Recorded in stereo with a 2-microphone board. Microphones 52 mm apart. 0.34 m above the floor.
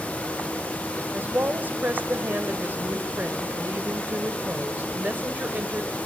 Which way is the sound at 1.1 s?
35° right (ahead or behind).